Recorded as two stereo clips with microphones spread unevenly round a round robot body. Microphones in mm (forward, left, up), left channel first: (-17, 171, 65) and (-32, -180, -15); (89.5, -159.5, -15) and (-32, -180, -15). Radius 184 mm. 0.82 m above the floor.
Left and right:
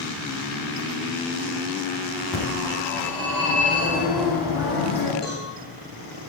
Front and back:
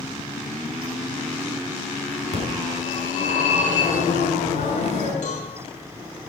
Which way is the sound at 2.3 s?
Straight ahead.